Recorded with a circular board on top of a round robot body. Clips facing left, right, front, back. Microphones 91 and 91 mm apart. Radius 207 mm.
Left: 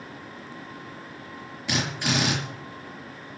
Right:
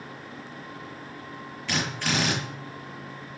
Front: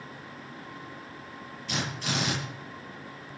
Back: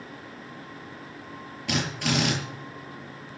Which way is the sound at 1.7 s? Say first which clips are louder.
Left 1 dB, back 5 dB; 165° left.